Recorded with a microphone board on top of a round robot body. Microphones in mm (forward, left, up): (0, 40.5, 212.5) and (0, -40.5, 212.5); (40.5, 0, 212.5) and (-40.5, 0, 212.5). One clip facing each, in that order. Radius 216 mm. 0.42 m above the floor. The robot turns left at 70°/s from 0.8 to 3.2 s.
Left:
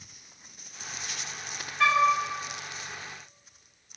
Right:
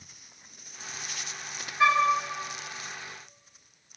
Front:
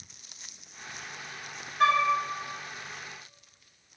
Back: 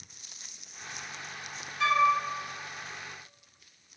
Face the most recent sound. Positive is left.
turn(degrees=-115)